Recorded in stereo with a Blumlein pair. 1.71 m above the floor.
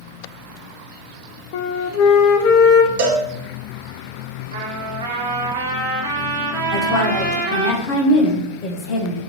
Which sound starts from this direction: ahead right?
A cowbell, at 3.0 s.